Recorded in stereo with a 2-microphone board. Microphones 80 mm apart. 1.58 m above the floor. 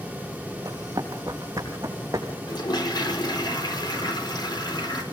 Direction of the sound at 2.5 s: 65° left (ahead or behind).